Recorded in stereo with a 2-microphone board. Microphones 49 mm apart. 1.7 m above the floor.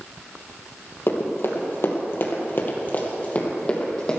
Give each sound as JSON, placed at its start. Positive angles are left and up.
{"t": 1.1, "sound": "running footsteps", "side_deg": 55, "distance_m": 3.5}